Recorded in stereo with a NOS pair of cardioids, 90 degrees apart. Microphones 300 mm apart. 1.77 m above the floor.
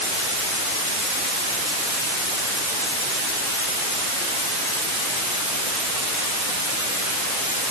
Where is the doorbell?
I don't hear a doorbell.